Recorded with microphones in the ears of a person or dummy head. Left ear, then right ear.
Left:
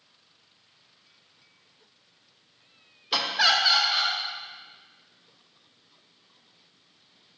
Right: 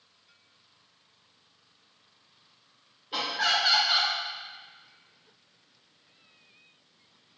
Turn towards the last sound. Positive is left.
turn(degrees=-25)  # may be behind; listen again after turning